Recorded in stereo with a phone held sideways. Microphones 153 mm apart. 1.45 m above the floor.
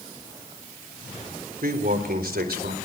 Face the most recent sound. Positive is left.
turn(degrees=-85)